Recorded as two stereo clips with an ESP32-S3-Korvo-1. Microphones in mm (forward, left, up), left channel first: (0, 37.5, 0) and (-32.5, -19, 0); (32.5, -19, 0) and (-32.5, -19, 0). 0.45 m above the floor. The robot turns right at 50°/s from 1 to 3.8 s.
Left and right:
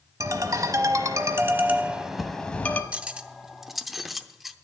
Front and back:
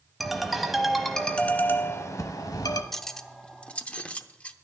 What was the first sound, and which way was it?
A ringtone, 90° right.